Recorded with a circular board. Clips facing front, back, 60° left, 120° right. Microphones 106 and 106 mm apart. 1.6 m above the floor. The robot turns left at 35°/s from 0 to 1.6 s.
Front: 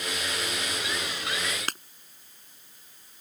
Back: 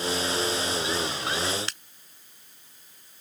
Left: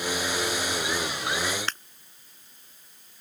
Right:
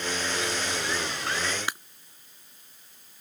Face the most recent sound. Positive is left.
turn(degrees=-40)